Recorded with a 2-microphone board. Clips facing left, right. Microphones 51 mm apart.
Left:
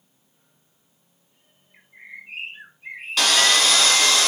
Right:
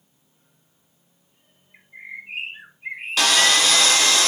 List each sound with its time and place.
1.7 s a bird: 25° right (ahead or behind), 0.7 m
3.2 s sawing: centre (ahead or behind), 0.8 m